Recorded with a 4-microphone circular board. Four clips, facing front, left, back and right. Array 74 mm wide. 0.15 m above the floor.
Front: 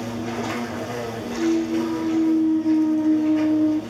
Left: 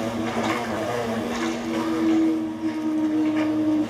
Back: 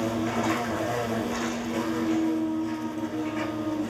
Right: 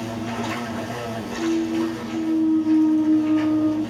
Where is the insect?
95° left, 5.5 m.